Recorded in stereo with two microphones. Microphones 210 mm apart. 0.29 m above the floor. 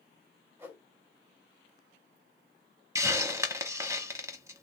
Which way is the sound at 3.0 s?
15° right (ahead or behind).